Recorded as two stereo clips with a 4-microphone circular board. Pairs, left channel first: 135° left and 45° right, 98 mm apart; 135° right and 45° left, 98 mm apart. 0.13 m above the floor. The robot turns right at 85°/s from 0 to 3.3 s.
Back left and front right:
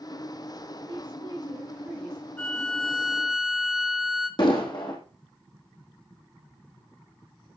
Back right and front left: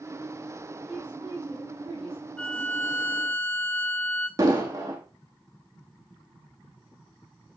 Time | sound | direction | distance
0.9 | a woman speaking | 50° right | 5.5 m
2.4 | a violin | 170° left | 1.8 m
4.4 | an explosion | 100° left | 2.5 m